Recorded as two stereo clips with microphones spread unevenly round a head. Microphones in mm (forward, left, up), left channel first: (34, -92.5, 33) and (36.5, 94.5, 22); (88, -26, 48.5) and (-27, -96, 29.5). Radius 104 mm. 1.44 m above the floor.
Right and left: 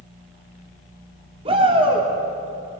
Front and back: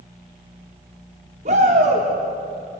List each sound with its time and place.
1.4 s a shout: 155° left, 3 m